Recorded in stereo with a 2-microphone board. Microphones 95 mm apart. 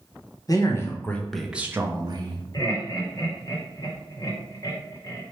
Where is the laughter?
40° left (ahead or behind), 1.4 m.